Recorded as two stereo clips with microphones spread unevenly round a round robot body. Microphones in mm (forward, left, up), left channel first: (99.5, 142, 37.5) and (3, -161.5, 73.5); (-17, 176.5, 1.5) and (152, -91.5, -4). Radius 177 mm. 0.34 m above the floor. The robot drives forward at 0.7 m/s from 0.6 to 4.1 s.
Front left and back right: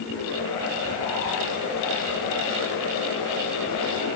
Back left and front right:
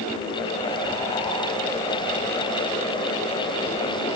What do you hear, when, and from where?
Only background noise.